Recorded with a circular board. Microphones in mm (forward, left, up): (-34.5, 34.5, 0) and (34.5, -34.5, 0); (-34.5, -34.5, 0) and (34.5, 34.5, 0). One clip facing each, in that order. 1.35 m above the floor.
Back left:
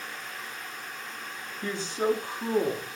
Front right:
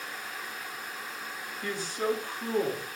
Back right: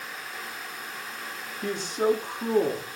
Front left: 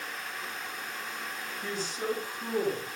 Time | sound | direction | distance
1.6 | a man speaking | 160° right | 3.5 m